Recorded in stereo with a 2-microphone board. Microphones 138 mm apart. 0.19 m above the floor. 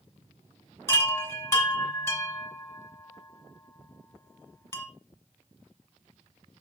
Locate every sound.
0.9 s a chime: 20° left (ahead or behind), 1.3 m